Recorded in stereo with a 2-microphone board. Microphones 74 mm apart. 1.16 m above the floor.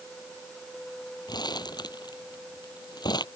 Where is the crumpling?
70° left (ahead or behind).